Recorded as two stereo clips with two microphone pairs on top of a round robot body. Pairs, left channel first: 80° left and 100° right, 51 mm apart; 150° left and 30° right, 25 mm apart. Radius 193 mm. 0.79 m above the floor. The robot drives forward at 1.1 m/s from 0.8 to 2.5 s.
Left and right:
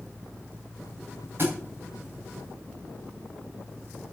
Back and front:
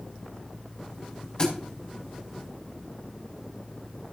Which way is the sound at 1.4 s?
150° right.